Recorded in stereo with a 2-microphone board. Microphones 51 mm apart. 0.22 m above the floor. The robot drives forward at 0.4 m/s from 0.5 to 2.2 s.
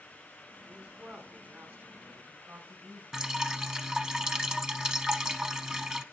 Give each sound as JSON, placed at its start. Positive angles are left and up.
{"t": 0.7, "sound": "a man speaking", "side_deg": -40, "distance_m": 2.5}
{"t": 3.1, "sound": "dripping", "side_deg": -20, "distance_m": 0.8}